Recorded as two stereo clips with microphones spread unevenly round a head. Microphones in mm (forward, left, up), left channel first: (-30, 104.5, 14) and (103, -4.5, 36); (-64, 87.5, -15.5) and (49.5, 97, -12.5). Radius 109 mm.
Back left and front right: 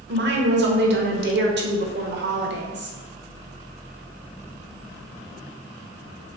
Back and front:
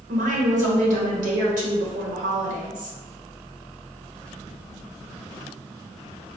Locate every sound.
0.1 s a woman speaking: 20° right, 1.0 m